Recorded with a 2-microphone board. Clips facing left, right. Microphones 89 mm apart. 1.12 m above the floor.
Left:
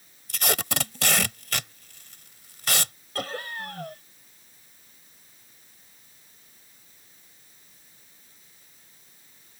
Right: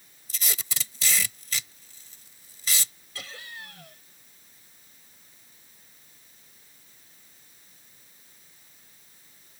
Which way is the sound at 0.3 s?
70° left (ahead or behind).